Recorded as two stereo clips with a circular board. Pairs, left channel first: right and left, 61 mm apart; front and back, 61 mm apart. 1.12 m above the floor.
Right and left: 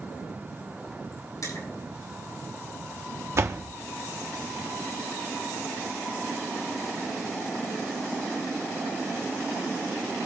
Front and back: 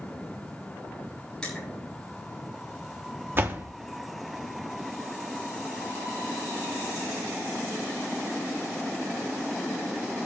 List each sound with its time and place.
1.4 s crushing: 75° right, 7 m
3.4 s a door slam: 130° left, 1.4 m